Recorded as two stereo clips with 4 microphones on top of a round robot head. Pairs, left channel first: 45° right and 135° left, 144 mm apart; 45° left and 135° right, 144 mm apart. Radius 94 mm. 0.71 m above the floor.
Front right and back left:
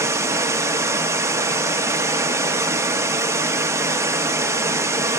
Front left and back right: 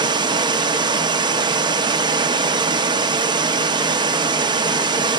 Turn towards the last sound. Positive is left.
turn(degrees=-165)